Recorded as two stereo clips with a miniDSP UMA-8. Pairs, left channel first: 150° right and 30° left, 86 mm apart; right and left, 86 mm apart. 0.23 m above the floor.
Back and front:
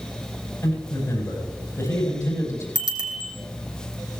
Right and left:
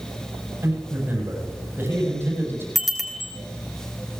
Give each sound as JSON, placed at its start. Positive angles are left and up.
{"t": 0.6, "sound": "a man speaking", "azimuth_deg": 155, "distance_m": 8.5}
{"t": 2.8, "sound": "a bicycle bell", "azimuth_deg": 0, "distance_m": 3.0}